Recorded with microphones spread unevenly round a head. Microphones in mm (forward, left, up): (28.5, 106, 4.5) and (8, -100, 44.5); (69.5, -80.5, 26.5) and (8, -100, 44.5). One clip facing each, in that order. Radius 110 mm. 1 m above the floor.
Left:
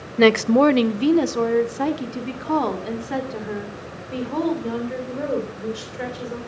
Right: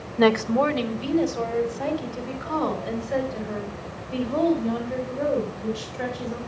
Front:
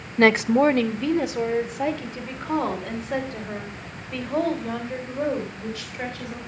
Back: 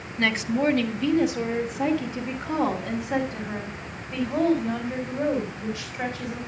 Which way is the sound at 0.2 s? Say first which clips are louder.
Left 5 dB, front 7 dB; 30° left.